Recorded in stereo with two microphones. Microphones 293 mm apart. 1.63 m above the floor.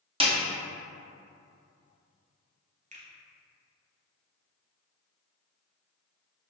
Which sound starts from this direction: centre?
A snare drum, at 0.2 s.